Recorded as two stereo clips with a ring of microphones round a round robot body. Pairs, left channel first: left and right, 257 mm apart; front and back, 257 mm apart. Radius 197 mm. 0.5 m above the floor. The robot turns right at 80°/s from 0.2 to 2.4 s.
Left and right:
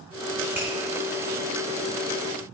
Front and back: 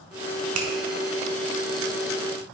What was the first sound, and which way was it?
A finger snap, 175° right.